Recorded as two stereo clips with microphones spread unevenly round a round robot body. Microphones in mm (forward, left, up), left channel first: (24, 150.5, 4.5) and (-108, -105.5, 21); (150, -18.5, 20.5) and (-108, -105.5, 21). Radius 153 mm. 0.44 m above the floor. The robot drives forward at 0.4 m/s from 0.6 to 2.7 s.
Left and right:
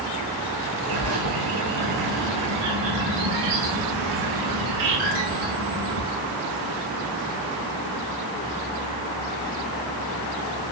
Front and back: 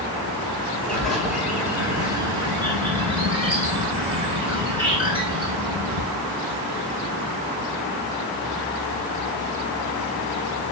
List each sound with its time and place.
0.9 s a bird: 70° right, 2.0 m; by 6.0 s 90° right, 1.9 m